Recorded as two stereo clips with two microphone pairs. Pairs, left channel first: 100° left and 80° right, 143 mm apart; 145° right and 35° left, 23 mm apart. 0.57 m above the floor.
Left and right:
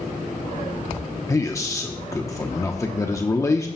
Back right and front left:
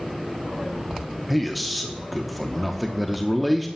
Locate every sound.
1.3 s a man speaking: 130° left, 0.8 m